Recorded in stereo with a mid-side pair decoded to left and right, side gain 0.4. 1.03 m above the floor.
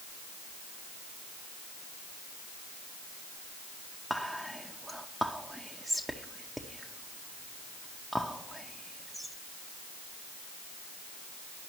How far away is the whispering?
About 0.6 m.